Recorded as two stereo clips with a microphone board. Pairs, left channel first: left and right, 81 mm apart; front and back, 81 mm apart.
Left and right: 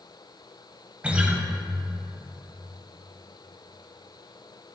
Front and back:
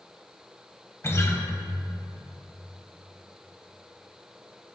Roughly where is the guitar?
Ahead right.